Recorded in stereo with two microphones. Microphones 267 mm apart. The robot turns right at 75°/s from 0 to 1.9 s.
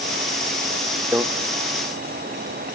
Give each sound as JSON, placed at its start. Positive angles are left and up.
{"t": 1.1, "sound": "a microwave", "side_deg": -10, "distance_m": 0.6}